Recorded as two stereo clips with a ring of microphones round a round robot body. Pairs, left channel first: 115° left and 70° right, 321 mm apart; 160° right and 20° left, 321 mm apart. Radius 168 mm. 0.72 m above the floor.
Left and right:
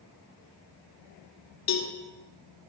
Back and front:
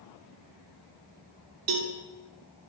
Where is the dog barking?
I don't hear a dog barking.